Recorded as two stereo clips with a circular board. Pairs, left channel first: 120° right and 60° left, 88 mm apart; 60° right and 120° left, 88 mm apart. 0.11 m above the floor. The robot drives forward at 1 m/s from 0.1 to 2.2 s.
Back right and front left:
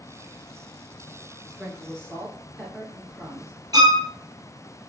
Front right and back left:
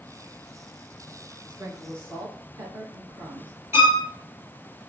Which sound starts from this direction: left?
A violin, at 3.7 s.